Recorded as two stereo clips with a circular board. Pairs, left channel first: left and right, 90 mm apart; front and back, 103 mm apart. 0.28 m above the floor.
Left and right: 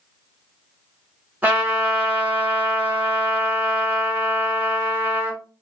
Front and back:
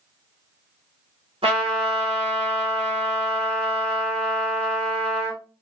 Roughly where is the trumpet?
Behind.